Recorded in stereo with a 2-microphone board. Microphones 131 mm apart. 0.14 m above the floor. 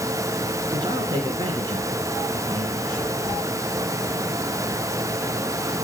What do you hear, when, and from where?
0.7 s a man speaking: 35° right (ahead or behind), 1.8 m